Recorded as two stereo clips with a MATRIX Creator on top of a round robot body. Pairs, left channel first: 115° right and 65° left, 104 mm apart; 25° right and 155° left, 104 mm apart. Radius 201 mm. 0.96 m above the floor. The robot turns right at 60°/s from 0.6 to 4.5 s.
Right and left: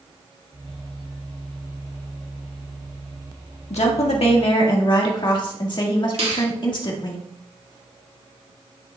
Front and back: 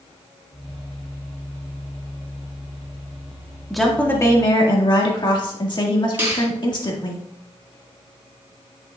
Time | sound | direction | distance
3.7 | a woman speaking | 115° right | 1.7 m
6.2 | a finger snap | 85° left | 4 m